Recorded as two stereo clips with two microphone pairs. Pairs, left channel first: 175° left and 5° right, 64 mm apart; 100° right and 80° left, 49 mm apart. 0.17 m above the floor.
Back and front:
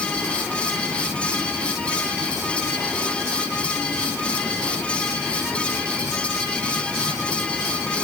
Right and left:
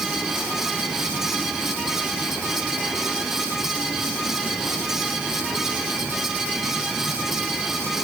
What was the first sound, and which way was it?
Only background noise.